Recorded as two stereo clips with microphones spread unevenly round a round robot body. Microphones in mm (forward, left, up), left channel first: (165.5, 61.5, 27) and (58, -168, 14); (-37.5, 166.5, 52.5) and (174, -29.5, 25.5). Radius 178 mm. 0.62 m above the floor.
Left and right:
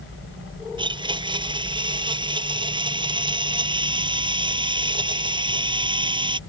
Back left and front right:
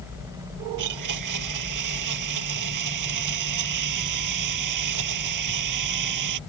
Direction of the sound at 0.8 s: 45° right.